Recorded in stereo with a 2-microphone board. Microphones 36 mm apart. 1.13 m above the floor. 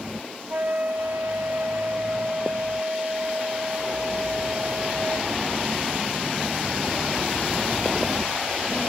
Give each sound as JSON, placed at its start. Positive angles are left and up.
{"t": 0.5, "sound": "a flute", "side_deg": -55, "distance_m": 1.9}